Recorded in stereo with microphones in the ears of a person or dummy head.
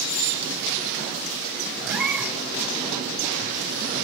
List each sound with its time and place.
1.8 s a cat meowing: 5° right (ahead or behind), 2.5 m